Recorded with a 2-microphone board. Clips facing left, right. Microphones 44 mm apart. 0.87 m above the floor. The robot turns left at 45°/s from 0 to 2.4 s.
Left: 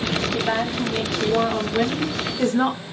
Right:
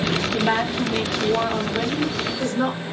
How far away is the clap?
I don't hear a clap.